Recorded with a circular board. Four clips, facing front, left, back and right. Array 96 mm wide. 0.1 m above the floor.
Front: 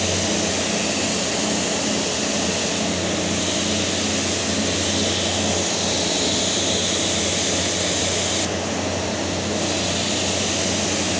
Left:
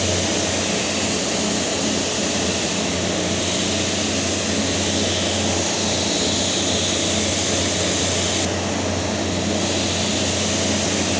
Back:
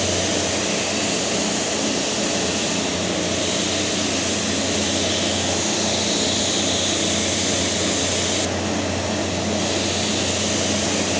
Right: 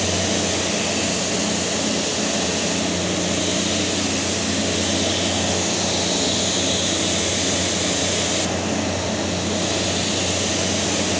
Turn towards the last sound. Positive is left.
No sound to turn to.